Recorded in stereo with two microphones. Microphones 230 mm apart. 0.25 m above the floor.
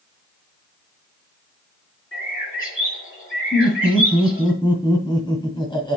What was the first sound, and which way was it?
A bird, 65° left (ahead or behind).